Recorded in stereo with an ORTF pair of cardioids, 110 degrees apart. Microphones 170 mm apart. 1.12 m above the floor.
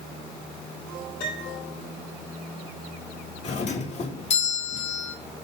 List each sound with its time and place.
1.2 s a piano: 60° left, 7 m
3.4 s a doorbell: 45° left, 2.0 m